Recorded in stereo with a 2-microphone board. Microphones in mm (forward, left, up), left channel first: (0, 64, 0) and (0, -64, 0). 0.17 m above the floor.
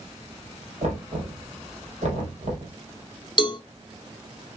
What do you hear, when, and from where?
0.8 s knocking: 65° right (ahead or behind), 4 m
3.4 s a cowbell: 40° left (ahead or behind), 1.0 m